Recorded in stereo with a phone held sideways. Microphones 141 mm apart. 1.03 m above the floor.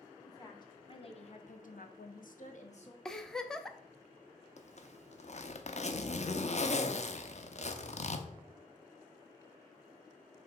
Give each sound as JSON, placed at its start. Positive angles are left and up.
{"t": 0.2, "sound": "a woman speaking", "side_deg": 25, "distance_m": 1.8}
{"t": 3.0, "sound": "a giggle", "side_deg": 5, "distance_m": 0.6}
{"t": 4.6, "sound": "a zipper", "side_deg": 55, "distance_m": 0.7}